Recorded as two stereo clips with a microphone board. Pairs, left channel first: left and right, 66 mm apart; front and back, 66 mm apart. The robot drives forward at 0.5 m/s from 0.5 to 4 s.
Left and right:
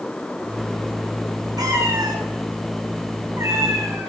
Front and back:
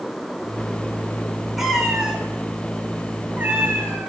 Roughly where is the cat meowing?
Right.